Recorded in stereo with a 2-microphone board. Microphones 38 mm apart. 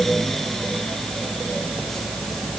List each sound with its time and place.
Only background noise.